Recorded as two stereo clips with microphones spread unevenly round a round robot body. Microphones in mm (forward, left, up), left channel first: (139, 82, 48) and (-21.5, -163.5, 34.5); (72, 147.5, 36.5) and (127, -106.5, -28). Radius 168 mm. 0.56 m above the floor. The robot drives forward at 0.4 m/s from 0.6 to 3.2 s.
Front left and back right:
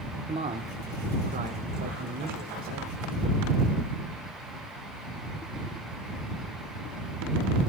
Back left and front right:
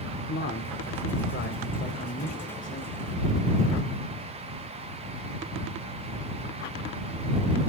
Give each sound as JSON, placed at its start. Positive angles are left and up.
{"t": 0.3, "sound": "a man speaking", "azimuth_deg": 170, "distance_m": 1.0}